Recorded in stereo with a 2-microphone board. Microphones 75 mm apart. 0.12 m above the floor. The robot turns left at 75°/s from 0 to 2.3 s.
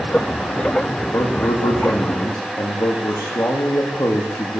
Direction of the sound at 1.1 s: 135° left.